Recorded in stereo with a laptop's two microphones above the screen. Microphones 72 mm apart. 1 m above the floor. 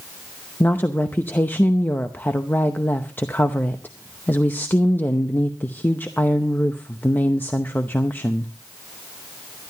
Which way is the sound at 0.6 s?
25° left (ahead or behind).